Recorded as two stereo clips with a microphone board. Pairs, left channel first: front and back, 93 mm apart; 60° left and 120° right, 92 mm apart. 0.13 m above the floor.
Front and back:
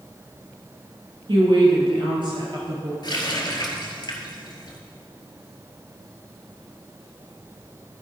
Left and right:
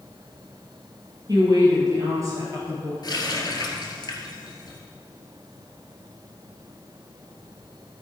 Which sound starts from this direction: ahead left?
A running tap, at 3.0 s.